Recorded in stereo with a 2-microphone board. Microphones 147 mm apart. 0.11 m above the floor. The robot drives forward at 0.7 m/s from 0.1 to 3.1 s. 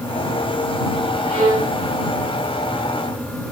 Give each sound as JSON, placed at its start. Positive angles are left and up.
{"t": 1.2, "sound": "a violin", "side_deg": -35, "distance_m": 6.5}